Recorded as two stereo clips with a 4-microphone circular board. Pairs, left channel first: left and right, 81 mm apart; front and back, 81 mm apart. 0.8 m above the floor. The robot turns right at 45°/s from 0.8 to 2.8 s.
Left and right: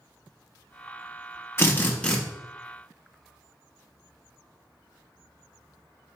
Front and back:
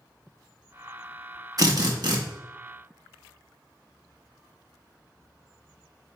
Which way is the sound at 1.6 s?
145° left.